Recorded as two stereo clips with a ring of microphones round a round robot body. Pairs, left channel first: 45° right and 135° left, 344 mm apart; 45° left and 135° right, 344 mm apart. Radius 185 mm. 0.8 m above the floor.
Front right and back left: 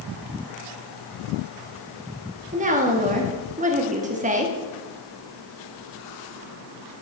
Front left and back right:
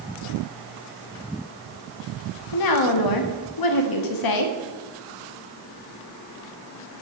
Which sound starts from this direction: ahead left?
A woman speaking, at 2.5 s.